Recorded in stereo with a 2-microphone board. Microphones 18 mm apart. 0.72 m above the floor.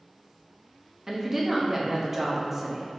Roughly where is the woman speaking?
Centre.